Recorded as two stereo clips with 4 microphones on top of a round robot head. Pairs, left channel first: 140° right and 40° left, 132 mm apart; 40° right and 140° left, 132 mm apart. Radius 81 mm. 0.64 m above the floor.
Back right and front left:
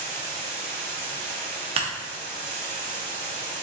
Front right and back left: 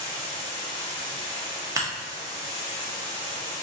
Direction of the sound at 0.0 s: 20° left.